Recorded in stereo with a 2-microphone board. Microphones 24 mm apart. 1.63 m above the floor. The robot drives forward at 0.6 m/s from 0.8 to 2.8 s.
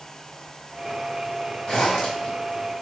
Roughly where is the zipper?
Left.